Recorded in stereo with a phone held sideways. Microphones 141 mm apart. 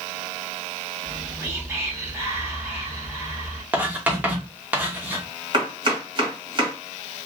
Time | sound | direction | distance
1.0 | whispering | 20° right (ahead or behind) | 1.2 m
3.7 | writing | 15° right (ahead or behind) | 0.9 m
5.5 | chopping | 35° right (ahead or behind) | 1.5 m